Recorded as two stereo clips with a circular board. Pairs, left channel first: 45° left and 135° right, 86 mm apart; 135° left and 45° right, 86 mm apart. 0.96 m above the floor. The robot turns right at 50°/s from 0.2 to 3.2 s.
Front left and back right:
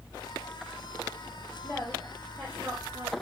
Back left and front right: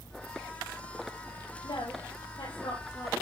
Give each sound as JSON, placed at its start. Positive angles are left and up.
{"t": 1.6, "sound": "a woman speaking", "azimuth_deg": 105, "distance_m": 5.0}